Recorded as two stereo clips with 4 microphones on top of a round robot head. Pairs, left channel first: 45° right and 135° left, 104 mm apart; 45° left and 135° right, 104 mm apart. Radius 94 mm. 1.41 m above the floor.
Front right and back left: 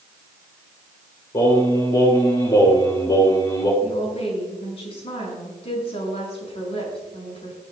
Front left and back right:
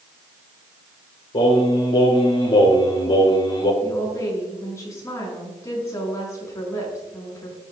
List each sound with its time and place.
1.3 s singing: 10° left, 3 m
3.8 s a woman speaking: 15° right, 6 m